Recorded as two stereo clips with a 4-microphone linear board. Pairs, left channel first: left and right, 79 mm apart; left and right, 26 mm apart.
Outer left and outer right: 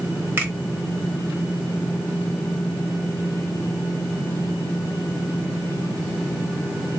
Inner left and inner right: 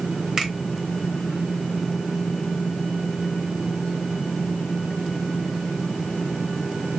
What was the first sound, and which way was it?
A finger snap, 25° right (ahead or behind).